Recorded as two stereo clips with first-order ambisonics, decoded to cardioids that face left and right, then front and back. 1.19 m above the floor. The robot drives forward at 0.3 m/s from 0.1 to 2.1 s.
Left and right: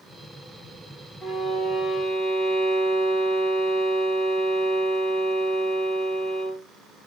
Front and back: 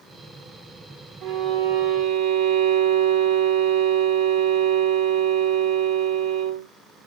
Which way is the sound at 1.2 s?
Straight behind.